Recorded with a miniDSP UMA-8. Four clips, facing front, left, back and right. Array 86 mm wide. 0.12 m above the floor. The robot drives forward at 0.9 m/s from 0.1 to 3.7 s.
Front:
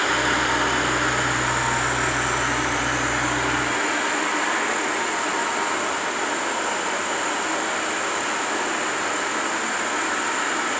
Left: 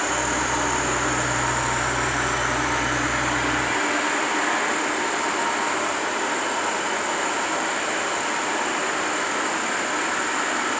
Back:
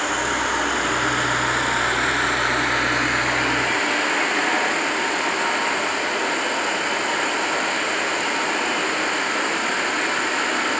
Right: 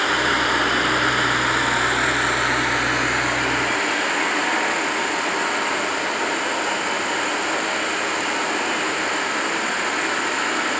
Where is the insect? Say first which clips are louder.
Right 4 dB, front 1 dB; 75° right, 2.5 m; by 10.8 s 150° right, 4 m.